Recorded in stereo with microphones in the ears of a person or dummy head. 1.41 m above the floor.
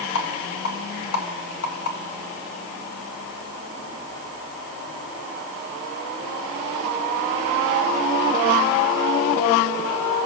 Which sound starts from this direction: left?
A rattle, at 0.1 s.